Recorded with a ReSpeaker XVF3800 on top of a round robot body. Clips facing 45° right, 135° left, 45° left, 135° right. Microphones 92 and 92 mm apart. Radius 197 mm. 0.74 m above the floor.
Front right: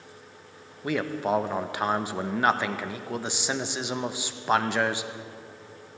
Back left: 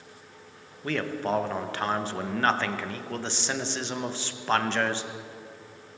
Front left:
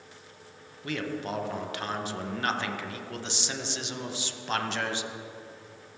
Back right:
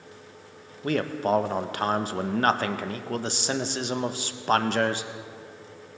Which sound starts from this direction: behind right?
A man speaking, at 0.8 s.